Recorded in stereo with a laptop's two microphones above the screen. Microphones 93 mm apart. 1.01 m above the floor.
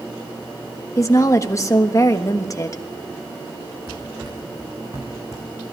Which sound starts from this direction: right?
Running footsteps, at 3.9 s.